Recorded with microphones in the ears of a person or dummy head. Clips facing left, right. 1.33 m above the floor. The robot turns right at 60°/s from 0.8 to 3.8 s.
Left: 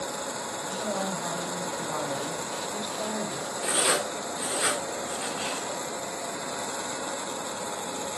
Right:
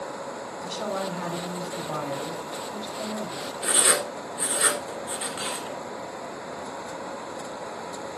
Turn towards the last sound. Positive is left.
turn(degrees=-30)  # may be behind; listen again after turning